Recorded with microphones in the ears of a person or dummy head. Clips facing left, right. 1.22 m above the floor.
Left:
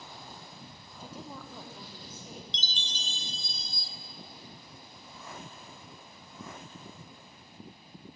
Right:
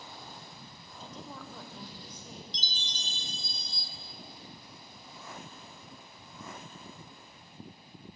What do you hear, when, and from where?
1.0 s a woman speaking: 10° left (ahead or behind), 0.6 m
2.5 s a chime: 25° left (ahead or behind), 0.7 m